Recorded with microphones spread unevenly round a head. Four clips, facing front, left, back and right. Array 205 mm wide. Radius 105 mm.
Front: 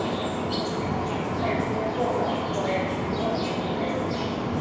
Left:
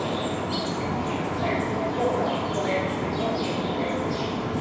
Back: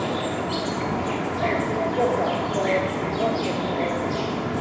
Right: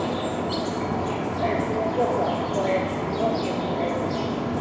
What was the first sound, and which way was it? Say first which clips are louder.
An insect: right 1 dB, back 2 dB; 130° right.